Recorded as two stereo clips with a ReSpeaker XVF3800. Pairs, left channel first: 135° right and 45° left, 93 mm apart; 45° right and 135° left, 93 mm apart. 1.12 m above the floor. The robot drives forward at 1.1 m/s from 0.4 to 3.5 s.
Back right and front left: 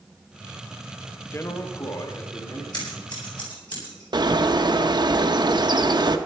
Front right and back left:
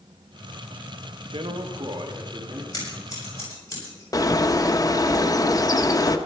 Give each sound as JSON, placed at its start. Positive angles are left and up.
{"t": 1.3, "sound": "a man speaking", "azimuth_deg": 165, "distance_m": 0.9}
{"t": 2.7, "sound": "scissors", "azimuth_deg": -95, "distance_m": 7.5}
{"t": 4.1, "sound": "a bird", "azimuth_deg": 5, "distance_m": 0.9}